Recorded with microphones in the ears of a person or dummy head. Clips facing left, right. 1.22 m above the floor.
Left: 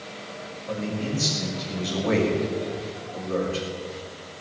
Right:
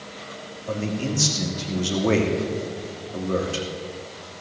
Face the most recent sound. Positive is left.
turn(degrees=-55)  # may be behind; listen again after turning